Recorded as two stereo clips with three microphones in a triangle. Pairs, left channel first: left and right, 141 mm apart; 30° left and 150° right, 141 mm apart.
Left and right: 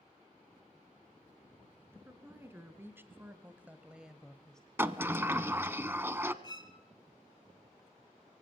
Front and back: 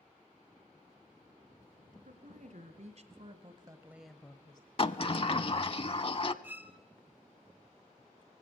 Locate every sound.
1.9 s a woman speaking: 165° right, 3 m; by 4.7 s 10° left, 1.3 m
4.8 s a sliding door: 20° right, 0.6 m
6.4 s a violin: 140° left, 1.3 m